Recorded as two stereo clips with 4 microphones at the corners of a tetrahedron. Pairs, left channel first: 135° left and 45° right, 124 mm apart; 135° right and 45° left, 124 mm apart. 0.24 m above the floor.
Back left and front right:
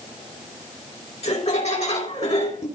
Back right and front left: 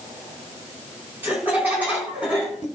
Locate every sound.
1.2 s laughter: 120° left, 3 m; by 2.7 s 130° left, 2.5 m